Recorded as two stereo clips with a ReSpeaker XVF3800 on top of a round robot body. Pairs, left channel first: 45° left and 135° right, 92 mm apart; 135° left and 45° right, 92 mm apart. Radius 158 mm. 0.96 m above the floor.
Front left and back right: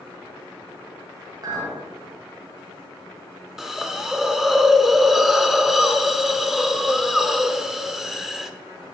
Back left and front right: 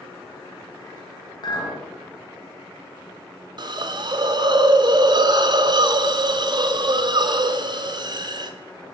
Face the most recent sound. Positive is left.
turn(degrees=-50)